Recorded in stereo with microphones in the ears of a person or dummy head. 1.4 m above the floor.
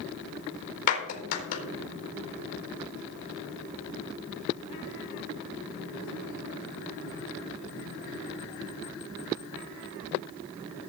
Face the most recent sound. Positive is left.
turn(degrees=50)  # may be behind; listen again after turning